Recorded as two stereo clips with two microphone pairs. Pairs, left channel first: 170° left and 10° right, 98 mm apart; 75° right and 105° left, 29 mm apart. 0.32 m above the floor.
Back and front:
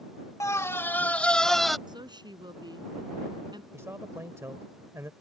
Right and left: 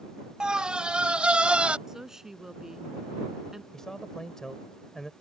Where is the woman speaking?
30° left.